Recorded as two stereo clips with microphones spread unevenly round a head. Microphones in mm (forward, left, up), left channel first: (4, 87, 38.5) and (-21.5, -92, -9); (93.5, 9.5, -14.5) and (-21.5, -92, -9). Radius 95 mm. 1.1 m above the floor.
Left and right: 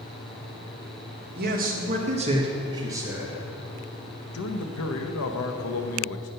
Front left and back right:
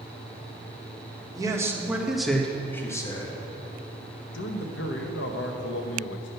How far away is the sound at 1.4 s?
About 1.4 m.